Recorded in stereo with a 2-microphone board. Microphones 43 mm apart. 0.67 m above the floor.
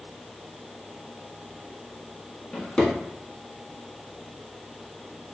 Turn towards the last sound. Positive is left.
turn(degrees=20)  # may be behind; listen again after turning